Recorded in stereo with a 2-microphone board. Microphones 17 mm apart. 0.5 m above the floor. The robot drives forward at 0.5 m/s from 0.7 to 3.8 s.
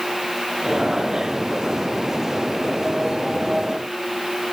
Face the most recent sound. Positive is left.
No sound to turn to.